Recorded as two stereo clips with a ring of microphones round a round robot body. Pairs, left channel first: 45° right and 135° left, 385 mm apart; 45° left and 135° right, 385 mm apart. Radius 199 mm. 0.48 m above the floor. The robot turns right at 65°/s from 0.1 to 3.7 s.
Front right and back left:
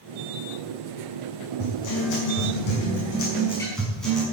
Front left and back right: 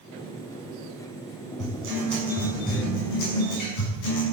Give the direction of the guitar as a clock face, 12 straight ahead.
3 o'clock.